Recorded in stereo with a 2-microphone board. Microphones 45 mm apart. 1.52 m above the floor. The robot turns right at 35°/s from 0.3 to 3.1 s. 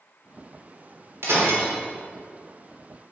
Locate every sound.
1.2 s breaking glass: 70° right (ahead or behind), 3.5 m; by 1.7 s 80° right, 3.5 m